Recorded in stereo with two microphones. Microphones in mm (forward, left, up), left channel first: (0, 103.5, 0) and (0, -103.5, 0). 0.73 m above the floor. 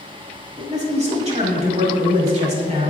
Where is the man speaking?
30° right (ahead or behind), 1.9 m.